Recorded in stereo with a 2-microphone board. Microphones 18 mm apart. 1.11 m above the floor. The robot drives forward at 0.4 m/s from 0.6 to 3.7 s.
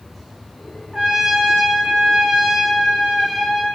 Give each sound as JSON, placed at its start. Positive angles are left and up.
{"t": 0.9, "sound": "a trumpet", "side_deg": -35, "distance_m": 0.8}